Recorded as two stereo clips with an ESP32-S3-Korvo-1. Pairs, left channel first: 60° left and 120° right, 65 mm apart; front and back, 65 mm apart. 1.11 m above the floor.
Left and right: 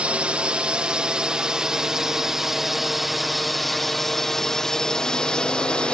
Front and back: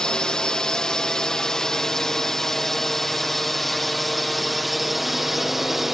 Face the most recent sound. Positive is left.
turn(degrees=100)